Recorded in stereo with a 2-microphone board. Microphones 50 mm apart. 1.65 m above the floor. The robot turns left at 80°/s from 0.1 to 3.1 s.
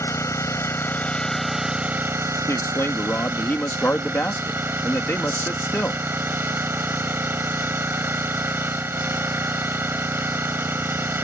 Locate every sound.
0.0 s an engine running: 110° left; by 11.2 s 130° right
2.5 s a man speaking: 95° left; by 6.0 s 45° left